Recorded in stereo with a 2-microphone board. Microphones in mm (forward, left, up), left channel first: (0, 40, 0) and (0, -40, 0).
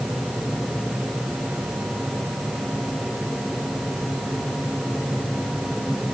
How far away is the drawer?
I don't hear a drawer.